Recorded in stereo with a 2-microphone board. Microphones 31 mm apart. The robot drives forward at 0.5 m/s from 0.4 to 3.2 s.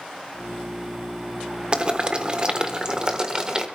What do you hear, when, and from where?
1.7 s boiling: 35° right (ahead or behind), 1.2 m; by 3.7 s 25° right (ahead or behind), 1.5 m